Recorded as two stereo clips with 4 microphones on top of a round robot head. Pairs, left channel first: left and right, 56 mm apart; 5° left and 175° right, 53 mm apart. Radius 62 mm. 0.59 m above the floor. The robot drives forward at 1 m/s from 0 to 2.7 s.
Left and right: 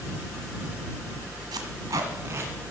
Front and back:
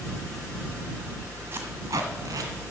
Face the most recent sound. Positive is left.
turn(degrees=-150)